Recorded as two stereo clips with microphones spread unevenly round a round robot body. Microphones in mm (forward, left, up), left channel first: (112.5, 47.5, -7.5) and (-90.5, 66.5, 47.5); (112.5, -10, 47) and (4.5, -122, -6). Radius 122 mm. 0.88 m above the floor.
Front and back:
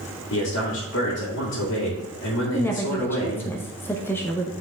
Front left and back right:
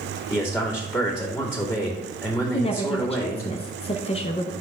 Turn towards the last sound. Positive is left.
turn(degrees=0)